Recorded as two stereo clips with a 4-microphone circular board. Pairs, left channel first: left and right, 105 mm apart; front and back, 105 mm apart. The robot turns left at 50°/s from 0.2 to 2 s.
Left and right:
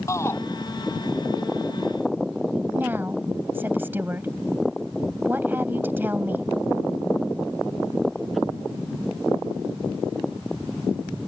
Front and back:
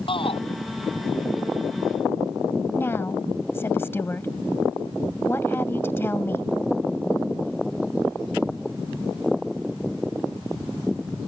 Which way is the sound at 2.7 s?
40° right.